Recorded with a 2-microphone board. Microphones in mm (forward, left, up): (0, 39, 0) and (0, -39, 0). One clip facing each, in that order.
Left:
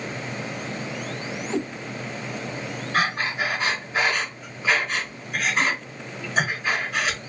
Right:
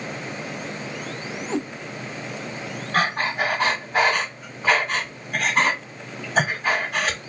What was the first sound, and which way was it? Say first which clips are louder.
A cat meowing: even; 25° right (ahead or behind).